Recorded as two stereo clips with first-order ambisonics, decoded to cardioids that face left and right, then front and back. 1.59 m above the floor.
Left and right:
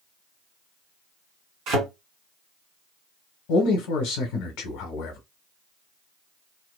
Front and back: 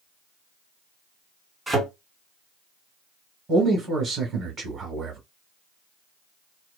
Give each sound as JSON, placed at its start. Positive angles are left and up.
{"t": 1.7, "sound": "a thud", "azimuth_deg": -100, "distance_m": 2.0}
{"t": 3.5, "sound": "a man speaking", "azimuth_deg": 110, "distance_m": 1.2}